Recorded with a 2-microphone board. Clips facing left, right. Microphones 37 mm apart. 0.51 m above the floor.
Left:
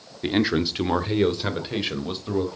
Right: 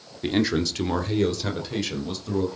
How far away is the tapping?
No tapping in this recording.